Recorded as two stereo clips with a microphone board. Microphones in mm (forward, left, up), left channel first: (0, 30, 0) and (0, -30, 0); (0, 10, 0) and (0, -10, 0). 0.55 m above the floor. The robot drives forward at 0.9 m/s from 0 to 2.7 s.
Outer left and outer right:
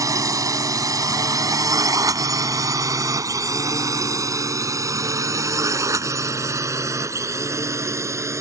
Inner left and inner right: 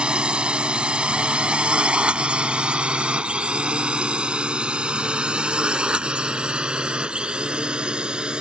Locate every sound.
0.0 s a drone: 65° right (ahead or behind); by 8.4 s 55° right (ahead or behind)